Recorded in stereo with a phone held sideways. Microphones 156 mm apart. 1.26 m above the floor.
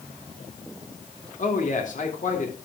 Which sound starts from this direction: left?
A man speaking, at 1.4 s.